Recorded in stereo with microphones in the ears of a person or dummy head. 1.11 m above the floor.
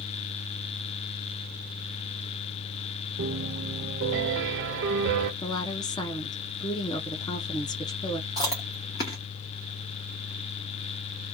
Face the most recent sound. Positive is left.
turn(degrees=20)  # may be behind; listen again after turning